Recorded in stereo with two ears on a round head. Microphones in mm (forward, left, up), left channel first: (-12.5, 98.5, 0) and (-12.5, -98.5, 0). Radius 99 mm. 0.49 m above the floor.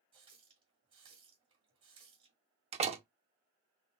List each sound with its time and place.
0.1 s a running tap: 25° right (ahead or behind), 1.5 m
2.7 s a door slam: 30° right (ahead or behind), 0.8 m